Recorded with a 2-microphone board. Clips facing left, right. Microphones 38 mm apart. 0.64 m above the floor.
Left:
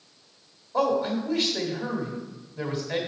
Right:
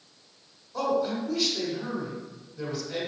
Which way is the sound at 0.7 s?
30° left (ahead or behind).